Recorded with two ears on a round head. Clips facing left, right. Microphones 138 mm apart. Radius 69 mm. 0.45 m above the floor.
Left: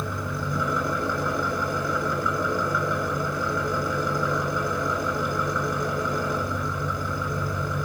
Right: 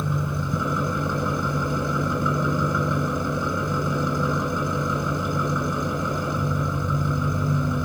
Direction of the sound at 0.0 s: 20° right (ahead or behind).